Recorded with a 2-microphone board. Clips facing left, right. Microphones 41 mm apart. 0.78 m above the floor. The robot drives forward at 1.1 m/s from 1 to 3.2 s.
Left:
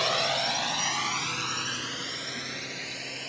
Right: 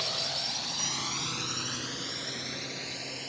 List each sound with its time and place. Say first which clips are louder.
0.0 s a drone: left 8 dB; 60° left (ahead or behind); by 3.3 s 40° left (ahead or behind)